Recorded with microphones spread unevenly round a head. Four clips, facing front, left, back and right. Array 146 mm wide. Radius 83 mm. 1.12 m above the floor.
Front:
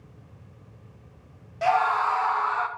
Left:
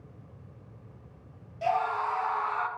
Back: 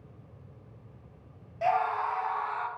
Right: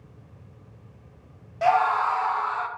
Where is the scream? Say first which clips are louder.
Right 7 dB, front 5 dB; 40° right, 0.8 m; by 2.7 s 25° left, 1.1 m.